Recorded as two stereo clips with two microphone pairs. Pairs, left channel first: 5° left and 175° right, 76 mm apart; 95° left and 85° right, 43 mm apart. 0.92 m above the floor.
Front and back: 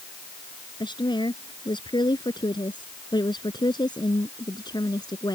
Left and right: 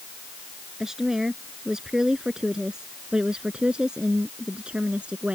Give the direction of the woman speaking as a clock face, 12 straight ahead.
12 o'clock.